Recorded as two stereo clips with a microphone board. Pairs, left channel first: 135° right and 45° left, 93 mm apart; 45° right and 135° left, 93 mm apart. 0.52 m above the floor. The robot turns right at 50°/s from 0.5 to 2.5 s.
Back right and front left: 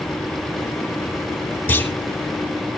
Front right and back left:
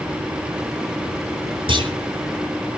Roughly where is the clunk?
Behind left.